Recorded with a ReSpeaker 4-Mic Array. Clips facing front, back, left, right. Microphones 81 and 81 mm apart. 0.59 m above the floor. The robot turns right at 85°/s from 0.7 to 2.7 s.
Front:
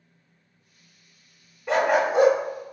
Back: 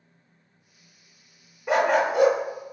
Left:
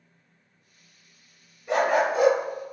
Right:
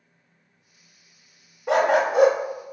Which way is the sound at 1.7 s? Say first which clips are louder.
Even, right 3 dB; 105° right.